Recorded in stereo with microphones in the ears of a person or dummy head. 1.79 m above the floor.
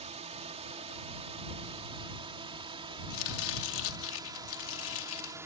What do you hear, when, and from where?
0.0 s a drone: 20° right (ahead or behind); by 5.5 s 5° right (ahead or behind)
3.1 s chopping: 70° left (ahead or behind)